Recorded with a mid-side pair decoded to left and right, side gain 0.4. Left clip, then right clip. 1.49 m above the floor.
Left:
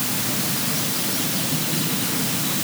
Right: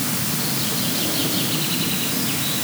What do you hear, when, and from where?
Only background noise.